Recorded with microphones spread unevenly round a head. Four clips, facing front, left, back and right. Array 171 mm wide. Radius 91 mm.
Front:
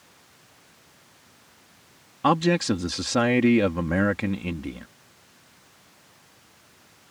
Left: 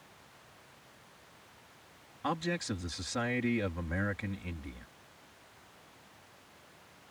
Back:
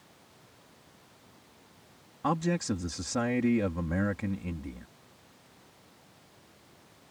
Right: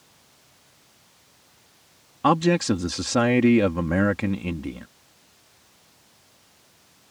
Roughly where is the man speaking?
Ahead right.